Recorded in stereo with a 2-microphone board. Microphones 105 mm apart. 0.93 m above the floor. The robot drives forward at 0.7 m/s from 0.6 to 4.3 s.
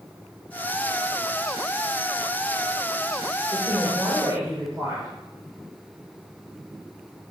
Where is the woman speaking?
30° right (ahead or behind), 2.5 m; by 5.1 s 25° right (ahead or behind), 3 m.